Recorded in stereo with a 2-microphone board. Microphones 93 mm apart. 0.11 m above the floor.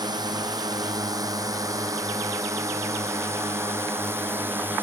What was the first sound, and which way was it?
A drone, 45° right (ahead or behind).